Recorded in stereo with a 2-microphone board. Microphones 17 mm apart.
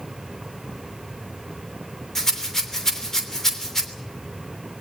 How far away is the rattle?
About 3 m.